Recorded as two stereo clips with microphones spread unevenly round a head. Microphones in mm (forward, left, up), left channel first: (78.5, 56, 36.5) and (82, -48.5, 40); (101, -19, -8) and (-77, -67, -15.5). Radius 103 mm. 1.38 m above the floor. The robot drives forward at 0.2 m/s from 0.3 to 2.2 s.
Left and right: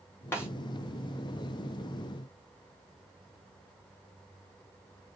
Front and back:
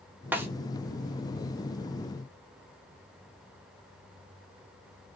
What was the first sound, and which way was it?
A snare drum, 125° left.